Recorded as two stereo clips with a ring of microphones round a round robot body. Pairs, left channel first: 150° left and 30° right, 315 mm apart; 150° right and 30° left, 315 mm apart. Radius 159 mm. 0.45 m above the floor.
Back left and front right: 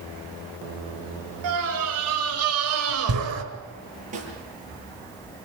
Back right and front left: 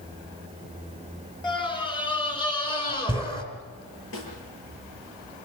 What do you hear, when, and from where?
1.4 s a scream: 75° right, 5.5 m
4.1 s a snare drum: 100° right, 7 m